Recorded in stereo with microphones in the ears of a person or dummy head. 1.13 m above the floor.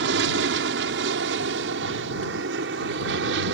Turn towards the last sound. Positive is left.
turn(degrees=-70)  # may be behind; listen again after turning